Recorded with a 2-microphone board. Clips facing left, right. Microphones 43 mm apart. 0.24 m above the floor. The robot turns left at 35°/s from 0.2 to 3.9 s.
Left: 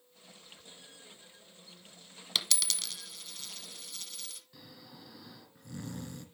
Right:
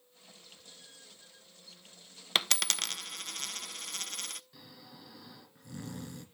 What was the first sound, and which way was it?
A dropped coin, 45° right (ahead or behind).